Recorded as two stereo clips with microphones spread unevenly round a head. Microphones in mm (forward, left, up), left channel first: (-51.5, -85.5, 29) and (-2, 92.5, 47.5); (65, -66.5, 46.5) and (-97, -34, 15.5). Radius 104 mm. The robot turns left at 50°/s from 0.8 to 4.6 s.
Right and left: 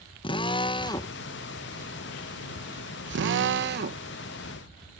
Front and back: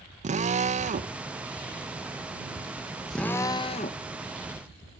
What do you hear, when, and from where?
0.2 s a drill: 165° right; by 5.0 s 5° left